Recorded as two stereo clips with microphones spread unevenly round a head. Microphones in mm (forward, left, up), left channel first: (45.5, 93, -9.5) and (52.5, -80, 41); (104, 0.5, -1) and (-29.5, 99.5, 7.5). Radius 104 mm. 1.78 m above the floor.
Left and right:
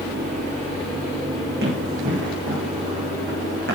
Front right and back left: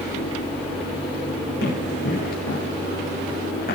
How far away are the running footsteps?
About 5.5 m.